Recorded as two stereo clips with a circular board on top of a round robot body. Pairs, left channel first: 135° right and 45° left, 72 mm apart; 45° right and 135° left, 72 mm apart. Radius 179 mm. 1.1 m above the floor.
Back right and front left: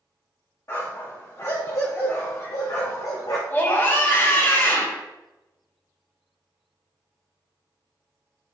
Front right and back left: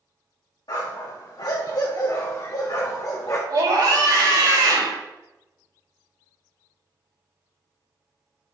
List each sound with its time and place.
0.7 s a dog barking: 80° right, 2 m; by 3.4 s 100° right, 1.0 m
3.5 s a scream: 165° left, 3.5 m